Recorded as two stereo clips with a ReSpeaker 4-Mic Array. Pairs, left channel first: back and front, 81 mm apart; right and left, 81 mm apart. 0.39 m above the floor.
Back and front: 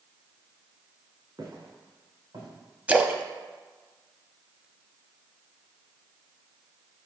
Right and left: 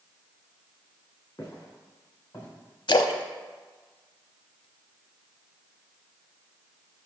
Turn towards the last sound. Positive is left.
turn(degrees=-75)